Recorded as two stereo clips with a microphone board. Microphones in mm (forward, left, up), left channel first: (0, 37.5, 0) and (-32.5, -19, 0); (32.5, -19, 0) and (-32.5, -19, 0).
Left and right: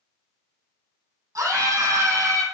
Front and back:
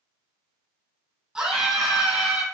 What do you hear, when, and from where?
1.4 s a scream: 100° right, 4.5 m; by 2.4 s 110° right, 4.5 m